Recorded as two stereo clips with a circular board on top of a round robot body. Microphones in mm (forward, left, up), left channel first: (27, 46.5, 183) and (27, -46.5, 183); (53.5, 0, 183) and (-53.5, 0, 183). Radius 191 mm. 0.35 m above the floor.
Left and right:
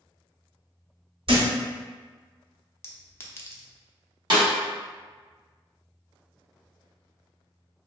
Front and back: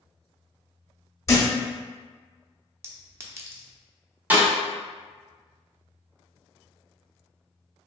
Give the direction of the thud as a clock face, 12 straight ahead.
2 o'clock.